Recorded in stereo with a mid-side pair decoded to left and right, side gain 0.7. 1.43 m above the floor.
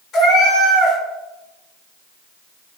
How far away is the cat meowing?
About 1.9 m.